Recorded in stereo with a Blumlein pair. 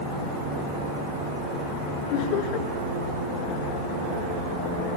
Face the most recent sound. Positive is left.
turn(degrees=45)